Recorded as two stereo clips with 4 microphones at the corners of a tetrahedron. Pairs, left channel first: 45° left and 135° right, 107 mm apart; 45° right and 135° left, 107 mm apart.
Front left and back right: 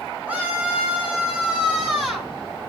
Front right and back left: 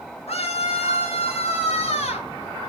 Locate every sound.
0.3 s a scream: 60° right, 5.5 m; by 2.3 s 50° right, 6 m